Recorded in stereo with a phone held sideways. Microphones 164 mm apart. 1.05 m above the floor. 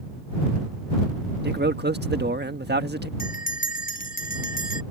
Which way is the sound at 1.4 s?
75° right (ahead or behind).